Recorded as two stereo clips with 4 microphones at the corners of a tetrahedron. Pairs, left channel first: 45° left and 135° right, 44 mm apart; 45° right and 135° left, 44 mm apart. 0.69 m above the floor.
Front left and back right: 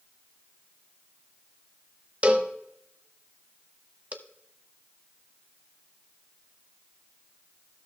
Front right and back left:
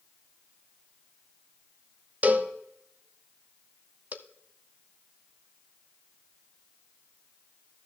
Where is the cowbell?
175° left, 0.7 m.